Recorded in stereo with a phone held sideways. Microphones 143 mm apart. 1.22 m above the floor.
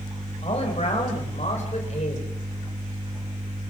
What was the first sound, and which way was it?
A man speaking, 50° left (ahead or behind).